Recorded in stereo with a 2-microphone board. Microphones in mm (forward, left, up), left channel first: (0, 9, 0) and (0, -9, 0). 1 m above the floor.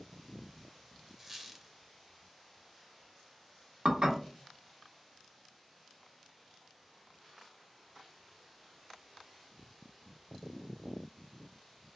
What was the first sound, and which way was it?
A squeak, 15° right (ahead or behind).